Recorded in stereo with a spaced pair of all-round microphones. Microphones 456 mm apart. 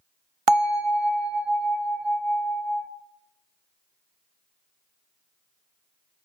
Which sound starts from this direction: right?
A bell, at 0.5 s.